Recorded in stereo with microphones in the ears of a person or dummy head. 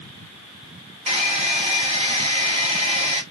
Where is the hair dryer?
30° right (ahead or behind), 1.4 m.